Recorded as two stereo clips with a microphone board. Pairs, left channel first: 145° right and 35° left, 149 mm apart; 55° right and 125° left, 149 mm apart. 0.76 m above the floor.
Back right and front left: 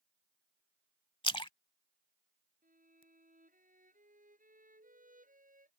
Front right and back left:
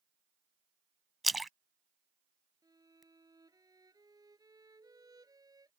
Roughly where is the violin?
Ahead left.